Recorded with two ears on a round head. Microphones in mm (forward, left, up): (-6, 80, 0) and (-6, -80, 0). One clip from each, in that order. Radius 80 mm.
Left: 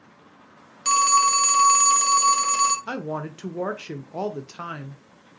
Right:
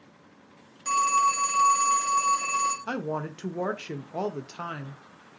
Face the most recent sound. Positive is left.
turn(degrees=5)  # may be behind; listen again after turning